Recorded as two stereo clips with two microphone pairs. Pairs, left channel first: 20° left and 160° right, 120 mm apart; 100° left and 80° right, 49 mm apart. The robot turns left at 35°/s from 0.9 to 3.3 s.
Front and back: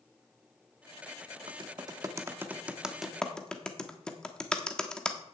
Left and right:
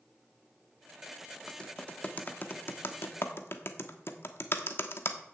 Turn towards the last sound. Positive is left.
turn(degrees=100)